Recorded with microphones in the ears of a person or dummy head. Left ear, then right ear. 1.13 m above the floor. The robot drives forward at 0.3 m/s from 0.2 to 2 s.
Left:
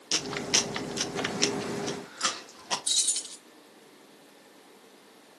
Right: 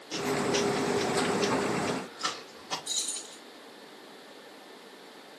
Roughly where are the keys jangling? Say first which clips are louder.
Left 8 dB; left.